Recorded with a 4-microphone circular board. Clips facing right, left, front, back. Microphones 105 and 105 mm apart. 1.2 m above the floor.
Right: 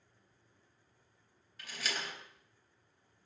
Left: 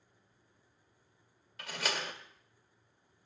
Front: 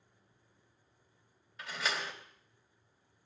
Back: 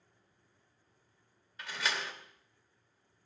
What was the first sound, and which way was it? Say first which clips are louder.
A door slam: left 4 dB, even; 90° left.